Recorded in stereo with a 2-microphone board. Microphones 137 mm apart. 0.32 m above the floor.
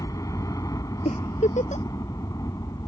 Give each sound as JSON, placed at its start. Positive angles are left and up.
{"t": 0.0, "sound": "a helicopter", "side_deg": 25}
{"t": 1.1, "sound": "a giggle", "side_deg": 60}